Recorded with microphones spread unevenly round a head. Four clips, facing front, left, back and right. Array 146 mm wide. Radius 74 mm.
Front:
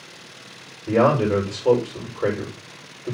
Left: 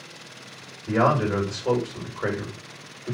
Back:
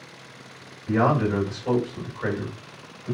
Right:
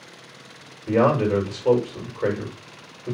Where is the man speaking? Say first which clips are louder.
Right 2 dB, front 4 dB; 40° right, 5 m.